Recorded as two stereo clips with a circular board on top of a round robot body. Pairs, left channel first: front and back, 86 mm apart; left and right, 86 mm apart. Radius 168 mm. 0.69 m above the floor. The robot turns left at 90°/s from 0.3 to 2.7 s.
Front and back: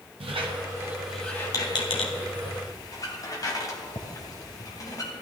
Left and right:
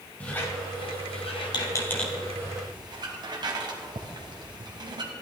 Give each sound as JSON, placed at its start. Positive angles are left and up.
{"t": 0.2, "sound": "a squeak", "azimuth_deg": 165, "distance_m": 1.7}